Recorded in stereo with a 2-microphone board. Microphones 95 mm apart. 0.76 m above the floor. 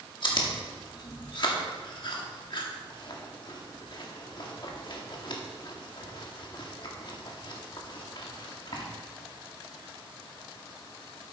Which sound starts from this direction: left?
Chewing, at 0.2 s.